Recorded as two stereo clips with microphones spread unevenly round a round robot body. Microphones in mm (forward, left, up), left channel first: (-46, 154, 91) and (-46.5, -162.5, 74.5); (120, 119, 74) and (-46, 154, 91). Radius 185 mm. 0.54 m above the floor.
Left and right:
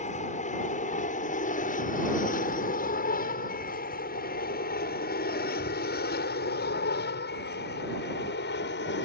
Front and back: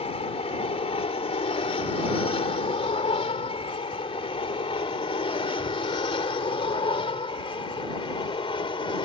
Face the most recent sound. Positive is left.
turn(degrees=40)